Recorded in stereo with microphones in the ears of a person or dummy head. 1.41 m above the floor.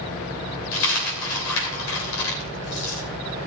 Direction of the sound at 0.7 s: 75° left (ahead or behind).